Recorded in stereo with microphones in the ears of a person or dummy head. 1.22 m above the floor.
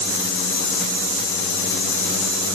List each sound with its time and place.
Only background noise.